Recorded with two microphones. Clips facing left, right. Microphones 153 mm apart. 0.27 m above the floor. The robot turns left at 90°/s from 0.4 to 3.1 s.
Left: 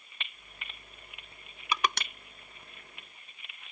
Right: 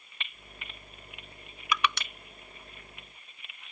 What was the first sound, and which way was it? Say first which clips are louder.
Crushing: right 1 dB; 30° left (ahead or behind).